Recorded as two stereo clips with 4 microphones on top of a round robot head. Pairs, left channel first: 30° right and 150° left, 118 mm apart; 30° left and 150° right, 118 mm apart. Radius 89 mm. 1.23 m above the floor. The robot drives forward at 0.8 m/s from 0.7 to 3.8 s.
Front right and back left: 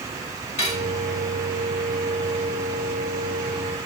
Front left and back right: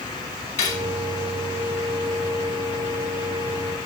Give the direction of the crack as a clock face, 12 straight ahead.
No crack in this recording.